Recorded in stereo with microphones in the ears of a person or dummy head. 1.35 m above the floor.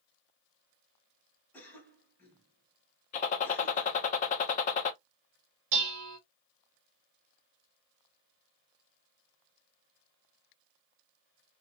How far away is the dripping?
I don't hear dripping.